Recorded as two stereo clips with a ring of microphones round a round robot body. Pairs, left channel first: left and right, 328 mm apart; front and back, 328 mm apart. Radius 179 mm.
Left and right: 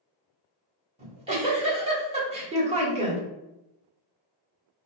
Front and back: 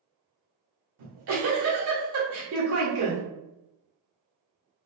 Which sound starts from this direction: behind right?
A giggle, at 1.0 s.